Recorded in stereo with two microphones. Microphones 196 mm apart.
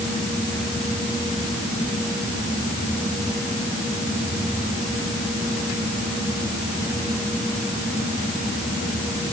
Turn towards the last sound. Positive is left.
No sound to turn to.